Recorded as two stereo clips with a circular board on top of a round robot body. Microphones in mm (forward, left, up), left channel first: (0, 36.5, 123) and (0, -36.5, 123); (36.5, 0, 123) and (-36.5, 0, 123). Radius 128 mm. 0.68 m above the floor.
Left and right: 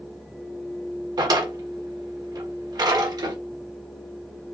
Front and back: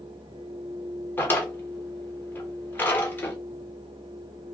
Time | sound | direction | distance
1.2 | a drawer | 65° right | 1.2 m